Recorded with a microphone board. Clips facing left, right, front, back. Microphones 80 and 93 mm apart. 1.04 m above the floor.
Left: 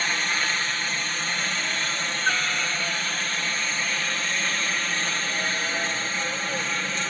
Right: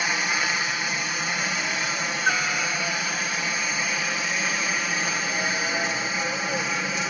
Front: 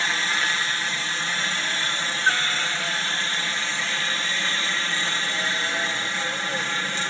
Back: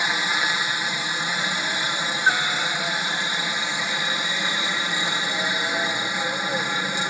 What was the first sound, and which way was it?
A helicopter, 145° right.